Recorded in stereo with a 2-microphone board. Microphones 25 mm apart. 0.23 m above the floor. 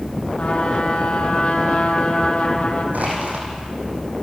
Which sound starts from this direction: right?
Crushing, at 2.9 s.